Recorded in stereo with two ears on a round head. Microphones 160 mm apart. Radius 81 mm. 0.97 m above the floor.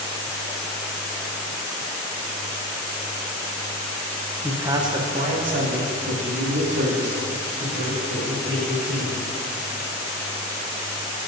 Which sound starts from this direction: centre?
A man speaking, at 4.4 s.